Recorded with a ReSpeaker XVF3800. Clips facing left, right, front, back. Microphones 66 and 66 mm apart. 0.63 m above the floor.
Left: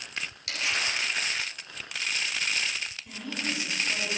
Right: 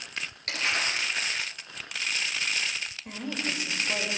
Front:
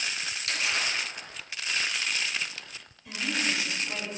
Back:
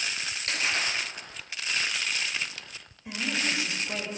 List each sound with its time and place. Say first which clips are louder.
0.5 s crumpling: right 2 dB, back 1 dB; 130° right, 1.9 m
3.0 s a woman speaking: right 2 dB, even; 115° right, 2.5 m